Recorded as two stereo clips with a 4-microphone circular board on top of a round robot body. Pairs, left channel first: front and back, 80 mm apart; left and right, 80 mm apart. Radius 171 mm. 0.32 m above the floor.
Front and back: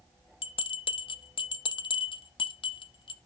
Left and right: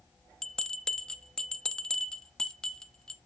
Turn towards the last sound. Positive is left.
turn(degrees=10)